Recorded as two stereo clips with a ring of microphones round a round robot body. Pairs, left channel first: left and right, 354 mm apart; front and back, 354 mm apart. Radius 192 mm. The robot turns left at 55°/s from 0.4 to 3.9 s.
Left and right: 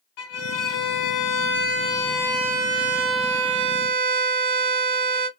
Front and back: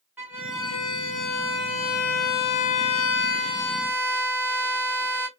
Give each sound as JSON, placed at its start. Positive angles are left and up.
{"t": 0.2, "sound": "a violin", "azimuth_deg": 95, "distance_m": 1.4}